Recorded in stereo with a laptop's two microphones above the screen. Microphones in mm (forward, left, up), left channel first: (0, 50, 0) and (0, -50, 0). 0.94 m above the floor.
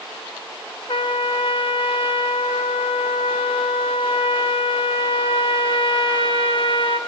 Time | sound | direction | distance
0.9 | a trumpet | 60° left (ahead or behind) | 0.9 m